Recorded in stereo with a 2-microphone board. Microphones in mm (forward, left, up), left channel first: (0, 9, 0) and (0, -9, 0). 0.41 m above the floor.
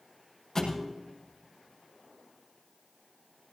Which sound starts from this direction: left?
A thud, at 0.6 s.